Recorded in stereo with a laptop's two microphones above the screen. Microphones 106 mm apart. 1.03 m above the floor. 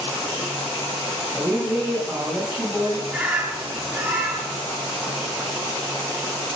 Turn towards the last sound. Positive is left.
turn(degrees=-15)  # may be behind; listen again after turning